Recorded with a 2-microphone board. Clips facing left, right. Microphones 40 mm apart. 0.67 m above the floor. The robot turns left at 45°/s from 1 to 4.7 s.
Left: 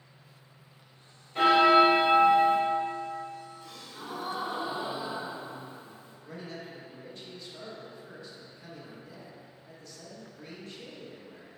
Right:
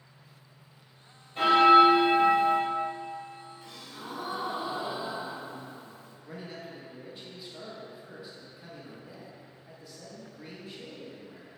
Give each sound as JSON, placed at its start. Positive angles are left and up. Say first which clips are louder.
{"t": 1.4, "sound": "a bell", "louder": "right 2 dB", "azimuth_deg": 110, "distance_m": 1.4}
{"t": 3.6, "sound": "a gasp", "louder": "even", "azimuth_deg": -155, "distance_m": 1.3}
{"t": 6.2, "sound": "a man speaking", "louder": "even", "side_deg": -15, "distance_m": 0.7}